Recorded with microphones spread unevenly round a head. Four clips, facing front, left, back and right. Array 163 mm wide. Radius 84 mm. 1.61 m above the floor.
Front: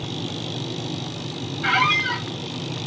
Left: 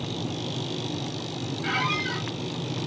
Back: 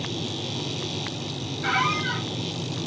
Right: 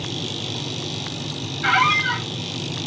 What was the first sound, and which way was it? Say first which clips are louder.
A squeak: right 10 dB, front 3 dB; 65° right.